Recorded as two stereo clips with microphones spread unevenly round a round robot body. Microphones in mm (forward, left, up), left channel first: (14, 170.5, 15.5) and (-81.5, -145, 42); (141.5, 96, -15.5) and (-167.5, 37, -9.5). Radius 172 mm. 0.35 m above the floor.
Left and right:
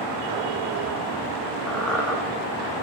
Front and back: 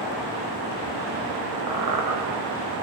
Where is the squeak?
160° left, 3.5 m.